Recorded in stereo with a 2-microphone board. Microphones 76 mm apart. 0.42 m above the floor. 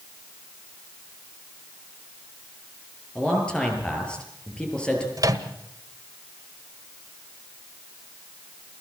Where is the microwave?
55° right (ahead or behind), 1.6 m.